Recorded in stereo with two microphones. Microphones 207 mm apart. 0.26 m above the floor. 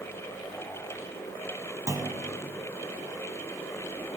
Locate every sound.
1.9 s a clunk: 15° right (ahead or behind), 0.6 m